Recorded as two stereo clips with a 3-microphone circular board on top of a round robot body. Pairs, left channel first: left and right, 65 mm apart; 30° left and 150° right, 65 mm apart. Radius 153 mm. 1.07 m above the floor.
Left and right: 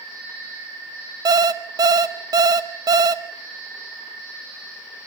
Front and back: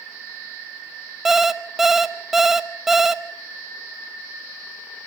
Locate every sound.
1.2 s an alarm clock: 65° right, 0.8 m